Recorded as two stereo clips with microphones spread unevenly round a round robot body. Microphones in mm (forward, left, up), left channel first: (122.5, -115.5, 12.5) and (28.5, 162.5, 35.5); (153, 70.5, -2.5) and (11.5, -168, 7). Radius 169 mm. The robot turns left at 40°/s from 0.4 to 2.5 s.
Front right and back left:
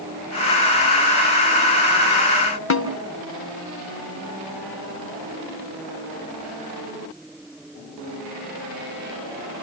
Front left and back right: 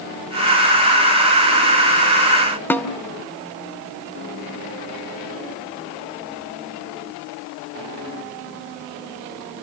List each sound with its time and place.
2.7 s a snare drum: 25° right, 2.5 m